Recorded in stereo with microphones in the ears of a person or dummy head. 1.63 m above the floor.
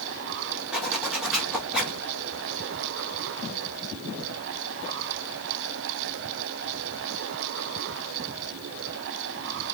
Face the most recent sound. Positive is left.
turn(degrees=-5)  # may be behind; listen again after turning